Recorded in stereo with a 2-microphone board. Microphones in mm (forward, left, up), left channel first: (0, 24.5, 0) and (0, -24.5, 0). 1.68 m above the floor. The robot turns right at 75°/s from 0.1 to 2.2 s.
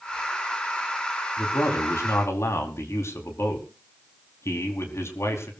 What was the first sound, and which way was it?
A man speaking, 45° left.